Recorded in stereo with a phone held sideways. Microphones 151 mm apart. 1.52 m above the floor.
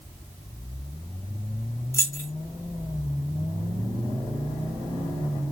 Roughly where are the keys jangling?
Centre.